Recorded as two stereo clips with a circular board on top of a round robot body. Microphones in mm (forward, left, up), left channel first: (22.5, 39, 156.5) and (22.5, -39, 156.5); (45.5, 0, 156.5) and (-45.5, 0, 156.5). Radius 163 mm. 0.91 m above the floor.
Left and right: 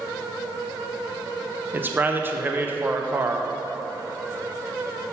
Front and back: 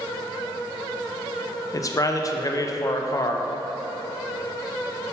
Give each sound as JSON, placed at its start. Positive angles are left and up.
{"t": 1.7, "sound": "a man speaking", "azimuth_deg": -35, "distance_m": 0.8}